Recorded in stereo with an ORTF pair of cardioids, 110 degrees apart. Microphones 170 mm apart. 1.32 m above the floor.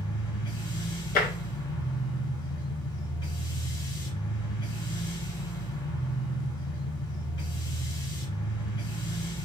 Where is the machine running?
25° left, 0.9 m.